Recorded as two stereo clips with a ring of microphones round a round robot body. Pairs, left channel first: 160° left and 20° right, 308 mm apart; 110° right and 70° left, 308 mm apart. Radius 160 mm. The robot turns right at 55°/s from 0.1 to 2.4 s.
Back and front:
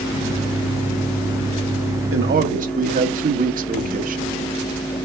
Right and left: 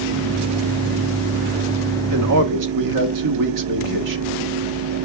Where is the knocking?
I don't hear knocking.